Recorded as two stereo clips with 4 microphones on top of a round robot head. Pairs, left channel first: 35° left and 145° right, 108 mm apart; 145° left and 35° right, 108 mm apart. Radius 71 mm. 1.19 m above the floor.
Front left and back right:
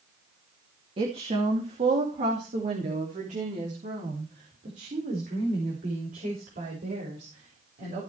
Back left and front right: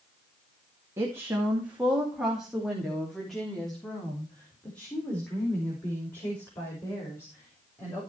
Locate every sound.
1.0 s a woman speaking: 105° right, 2 m; by 8.0 s 150° right, 6.5 m